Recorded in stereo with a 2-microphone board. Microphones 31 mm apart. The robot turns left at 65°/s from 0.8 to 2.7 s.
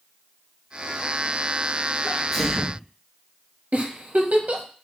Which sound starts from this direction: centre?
A sneeze, at 2.0 s.